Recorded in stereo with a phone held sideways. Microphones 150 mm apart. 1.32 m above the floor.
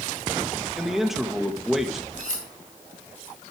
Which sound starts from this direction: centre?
A man speaking, at 0.8 s.